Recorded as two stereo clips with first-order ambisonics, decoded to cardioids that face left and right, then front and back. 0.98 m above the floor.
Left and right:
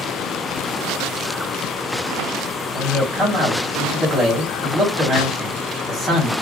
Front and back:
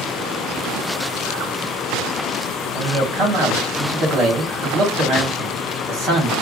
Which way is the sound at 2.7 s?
160° right.